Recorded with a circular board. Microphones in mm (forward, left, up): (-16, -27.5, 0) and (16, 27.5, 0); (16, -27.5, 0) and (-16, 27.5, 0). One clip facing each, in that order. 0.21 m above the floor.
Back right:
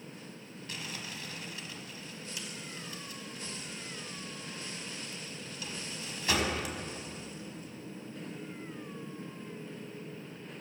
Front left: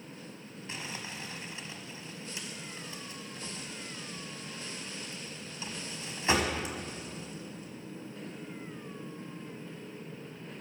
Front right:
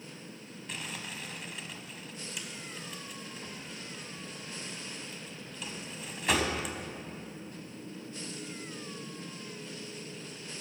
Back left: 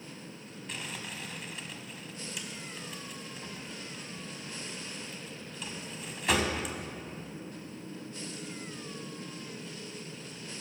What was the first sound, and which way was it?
Crumpling, 30° left.